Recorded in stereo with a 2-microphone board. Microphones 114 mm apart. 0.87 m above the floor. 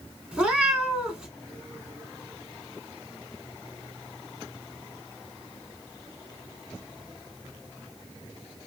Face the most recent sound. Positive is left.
turn(degrees=-10)  # may be behind; listen again after turning